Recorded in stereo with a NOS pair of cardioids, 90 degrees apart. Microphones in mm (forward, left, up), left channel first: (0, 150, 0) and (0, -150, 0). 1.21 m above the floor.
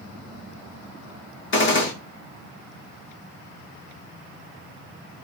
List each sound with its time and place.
1.5 s a gunshot: 40° left, 1.4 m